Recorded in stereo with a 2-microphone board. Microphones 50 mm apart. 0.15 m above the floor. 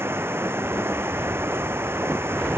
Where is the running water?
55° right (ahead or behind).